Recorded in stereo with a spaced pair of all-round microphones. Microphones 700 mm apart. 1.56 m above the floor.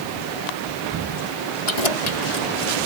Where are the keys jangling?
70° left (ahead or behind); by 2.8 s 55° left (ahead or behind).